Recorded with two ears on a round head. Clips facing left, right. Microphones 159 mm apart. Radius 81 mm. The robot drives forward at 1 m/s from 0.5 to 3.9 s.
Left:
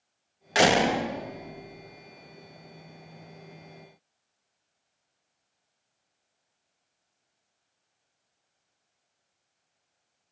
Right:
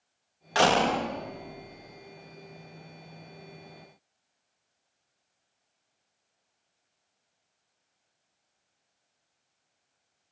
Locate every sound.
0.6 s a door slam: 20° left (ahead or behind); by 2.1 s 5° left (ahead or behind)